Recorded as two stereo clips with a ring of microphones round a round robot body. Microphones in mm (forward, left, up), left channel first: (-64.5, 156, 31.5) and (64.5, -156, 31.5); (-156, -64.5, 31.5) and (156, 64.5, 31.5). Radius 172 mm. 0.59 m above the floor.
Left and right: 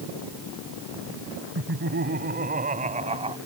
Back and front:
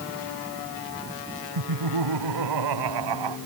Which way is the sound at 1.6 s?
10° right.